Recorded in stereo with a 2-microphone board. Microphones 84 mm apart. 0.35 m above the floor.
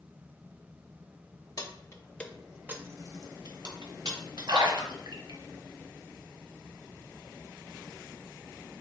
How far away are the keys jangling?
About 0.7 m.